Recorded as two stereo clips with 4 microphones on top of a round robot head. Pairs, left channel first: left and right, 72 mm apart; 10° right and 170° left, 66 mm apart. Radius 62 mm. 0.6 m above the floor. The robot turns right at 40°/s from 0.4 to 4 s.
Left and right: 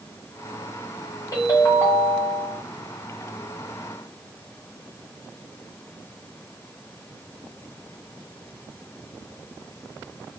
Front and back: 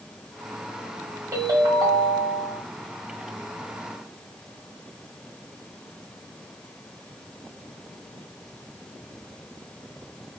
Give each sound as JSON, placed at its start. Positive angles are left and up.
{"t": 1.3, "sound": "a ringtone", "azimuth_deg": 130, "distance_m": 1.1}